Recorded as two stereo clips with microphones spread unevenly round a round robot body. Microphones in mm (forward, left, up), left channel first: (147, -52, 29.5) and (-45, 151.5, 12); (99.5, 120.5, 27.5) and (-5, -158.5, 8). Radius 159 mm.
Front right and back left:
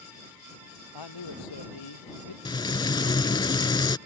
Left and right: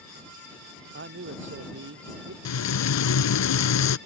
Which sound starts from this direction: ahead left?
Frying, at 2.5 s.